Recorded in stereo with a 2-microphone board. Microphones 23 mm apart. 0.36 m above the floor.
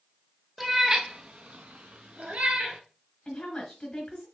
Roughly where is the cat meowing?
Centre.